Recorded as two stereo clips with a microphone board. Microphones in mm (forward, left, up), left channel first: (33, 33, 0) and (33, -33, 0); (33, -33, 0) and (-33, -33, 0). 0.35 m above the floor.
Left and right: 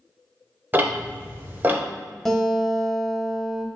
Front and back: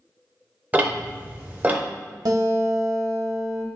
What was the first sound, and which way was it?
Ticking, 130° right.